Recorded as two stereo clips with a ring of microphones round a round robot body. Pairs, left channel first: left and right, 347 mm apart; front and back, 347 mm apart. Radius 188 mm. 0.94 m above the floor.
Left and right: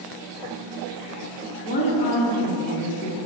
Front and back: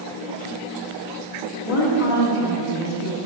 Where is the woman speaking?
20° left, 1.9 m.